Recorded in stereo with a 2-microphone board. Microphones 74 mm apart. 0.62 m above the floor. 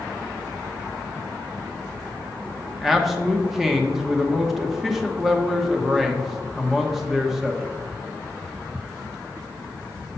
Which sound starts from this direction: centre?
A man speaking, at 2.8 s.